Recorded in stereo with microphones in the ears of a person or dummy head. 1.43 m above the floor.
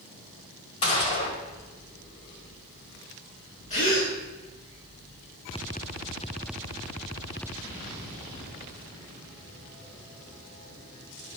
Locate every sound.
0.8 s a gunshot: 25° left (ahead or behind), 1.5 m
3.7 s a gasp: 35° left (ahead or behind), 3 m